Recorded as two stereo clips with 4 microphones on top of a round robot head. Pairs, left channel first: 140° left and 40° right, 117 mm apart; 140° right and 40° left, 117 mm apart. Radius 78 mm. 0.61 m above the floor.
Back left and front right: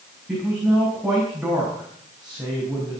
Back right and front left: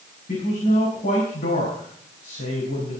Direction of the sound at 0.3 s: 125° right.